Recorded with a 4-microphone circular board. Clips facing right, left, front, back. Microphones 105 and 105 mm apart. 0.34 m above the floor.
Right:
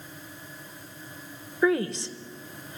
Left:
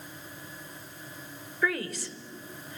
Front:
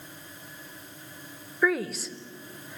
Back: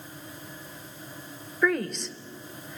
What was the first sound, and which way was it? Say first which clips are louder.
A woman speaking: right 7 dB, even; 80° right.